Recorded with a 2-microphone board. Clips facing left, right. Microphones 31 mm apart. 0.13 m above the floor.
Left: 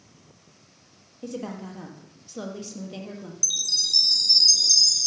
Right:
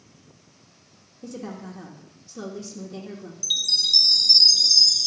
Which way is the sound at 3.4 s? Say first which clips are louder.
Right 4 dB; 35° right (ahead or behind).